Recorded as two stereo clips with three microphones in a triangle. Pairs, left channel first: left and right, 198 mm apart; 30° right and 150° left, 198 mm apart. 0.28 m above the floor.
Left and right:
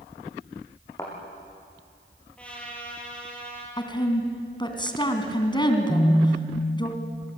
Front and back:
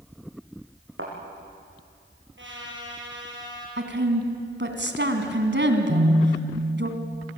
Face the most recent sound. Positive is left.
turn(degrees=170)